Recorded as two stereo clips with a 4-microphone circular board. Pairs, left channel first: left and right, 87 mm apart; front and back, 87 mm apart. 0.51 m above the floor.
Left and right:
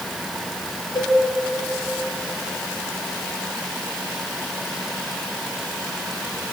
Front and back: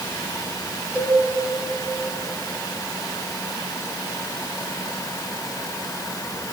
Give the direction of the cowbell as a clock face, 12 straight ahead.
8 o'clock.